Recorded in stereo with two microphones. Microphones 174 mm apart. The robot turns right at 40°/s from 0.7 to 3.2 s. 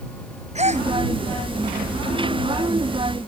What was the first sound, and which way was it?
A gasp, 40° right (ahead or behind).